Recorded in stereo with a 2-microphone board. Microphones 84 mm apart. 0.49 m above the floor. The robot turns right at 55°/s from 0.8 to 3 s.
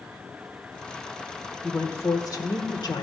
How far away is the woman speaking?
About 1.2 m.